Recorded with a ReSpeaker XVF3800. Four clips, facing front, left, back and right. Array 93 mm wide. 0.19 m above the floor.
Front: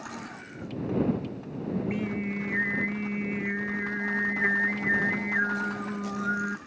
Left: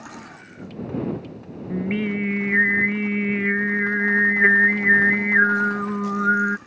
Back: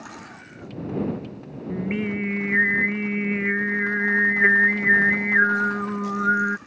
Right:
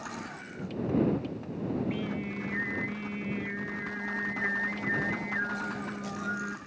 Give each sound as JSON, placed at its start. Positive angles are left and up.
{"t": 1.7, "sound": "singing", "azimuth_deg": 125}